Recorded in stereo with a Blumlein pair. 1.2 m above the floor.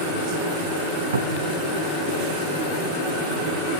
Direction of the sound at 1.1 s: 70° right.